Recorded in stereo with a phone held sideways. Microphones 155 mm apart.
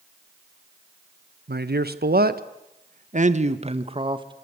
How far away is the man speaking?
About 1.4 m.